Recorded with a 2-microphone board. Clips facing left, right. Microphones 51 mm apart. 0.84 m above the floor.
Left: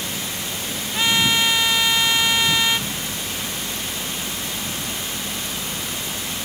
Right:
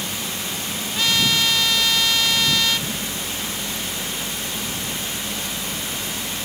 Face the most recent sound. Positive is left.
turn(degrees=20)  # may be behind; listen again after turning